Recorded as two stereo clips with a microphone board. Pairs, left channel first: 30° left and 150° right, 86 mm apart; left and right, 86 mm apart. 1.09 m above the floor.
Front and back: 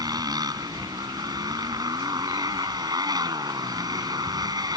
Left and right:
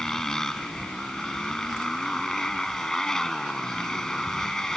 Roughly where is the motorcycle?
Behind.